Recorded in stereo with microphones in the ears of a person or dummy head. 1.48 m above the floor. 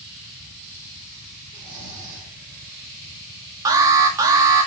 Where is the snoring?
20° right (ahead or behind), 5.5 m.